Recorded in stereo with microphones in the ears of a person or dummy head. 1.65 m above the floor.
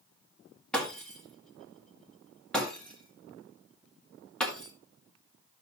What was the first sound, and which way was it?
Breaking glass, centre (ahead or behind).